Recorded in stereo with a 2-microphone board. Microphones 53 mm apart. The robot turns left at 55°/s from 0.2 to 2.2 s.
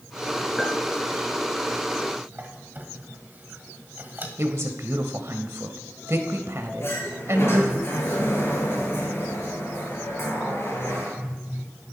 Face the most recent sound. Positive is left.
turn(degrees=50)  # may be behind; listen again after turning